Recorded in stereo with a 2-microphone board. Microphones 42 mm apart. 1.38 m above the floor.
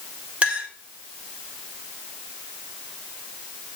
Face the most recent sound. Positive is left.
turn(degrees=-25)  # may be behind; listen again after turning